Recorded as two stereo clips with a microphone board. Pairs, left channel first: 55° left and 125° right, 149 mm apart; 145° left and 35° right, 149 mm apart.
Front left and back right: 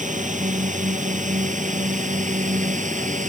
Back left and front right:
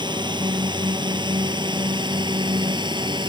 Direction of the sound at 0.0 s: 95° right.